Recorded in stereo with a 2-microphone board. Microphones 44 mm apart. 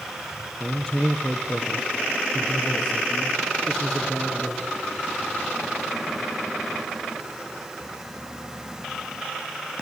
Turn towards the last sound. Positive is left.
turn(degrees=5)  # may be behind; listen again after turning